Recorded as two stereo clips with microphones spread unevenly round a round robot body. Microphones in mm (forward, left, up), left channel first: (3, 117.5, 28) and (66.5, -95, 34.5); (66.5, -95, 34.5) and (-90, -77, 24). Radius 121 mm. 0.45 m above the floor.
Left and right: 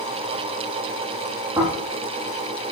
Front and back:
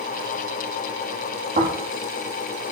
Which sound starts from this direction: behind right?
Snoring, at 1.6 s.